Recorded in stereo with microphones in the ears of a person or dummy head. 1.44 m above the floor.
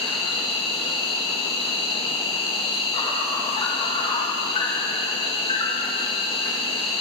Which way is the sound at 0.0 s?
30° left (ahead or behind).